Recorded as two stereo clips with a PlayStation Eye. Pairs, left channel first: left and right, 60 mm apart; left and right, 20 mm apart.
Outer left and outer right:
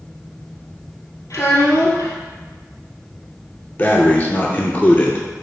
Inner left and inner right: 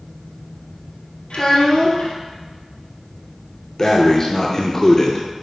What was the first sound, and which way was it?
A child speaking, 70° left (ahead or behind).